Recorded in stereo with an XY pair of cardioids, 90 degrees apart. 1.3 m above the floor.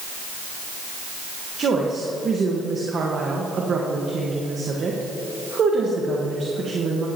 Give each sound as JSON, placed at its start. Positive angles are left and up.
{"t": 1.6, "sound": "a woman speaking", "azimuth_deg": -55, "distance_m": 1.5}